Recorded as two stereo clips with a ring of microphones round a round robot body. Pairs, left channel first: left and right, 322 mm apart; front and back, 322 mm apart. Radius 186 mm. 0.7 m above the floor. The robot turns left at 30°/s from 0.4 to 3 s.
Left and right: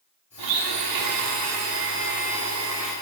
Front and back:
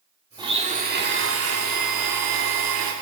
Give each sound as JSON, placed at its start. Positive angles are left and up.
{"t": 0.4, "sound": "a blender", "azimuth_deg": -100, "distance_m": 1.0}